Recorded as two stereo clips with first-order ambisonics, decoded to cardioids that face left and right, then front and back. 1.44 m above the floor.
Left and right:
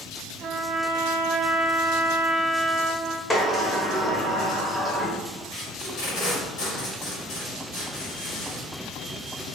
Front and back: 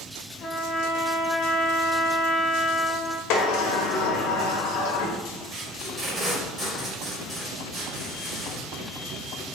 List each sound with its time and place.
0.4 s a trumpet: 50° right, 0.5 m
3.3 s a sliding door: 15° left, 0.8 m
5.5 s tape being pulled: 115° left, 1.8 m